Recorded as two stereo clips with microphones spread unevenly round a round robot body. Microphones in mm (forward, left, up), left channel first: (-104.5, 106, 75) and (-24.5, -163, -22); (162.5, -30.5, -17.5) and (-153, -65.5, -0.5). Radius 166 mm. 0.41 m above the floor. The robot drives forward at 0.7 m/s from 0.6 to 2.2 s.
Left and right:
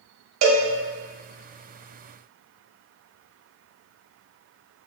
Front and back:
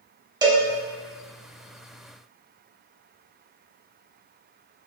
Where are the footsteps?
I don't hear footsteps.